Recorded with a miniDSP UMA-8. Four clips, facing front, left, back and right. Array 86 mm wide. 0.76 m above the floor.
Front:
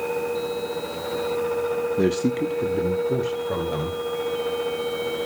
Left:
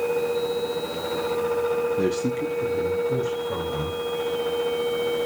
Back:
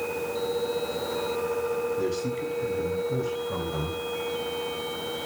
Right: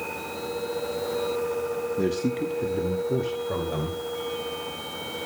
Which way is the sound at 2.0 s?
Straight ahead.